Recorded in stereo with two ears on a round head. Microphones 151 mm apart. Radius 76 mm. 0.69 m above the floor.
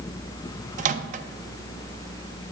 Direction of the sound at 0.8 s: 45° right (ahead or behind).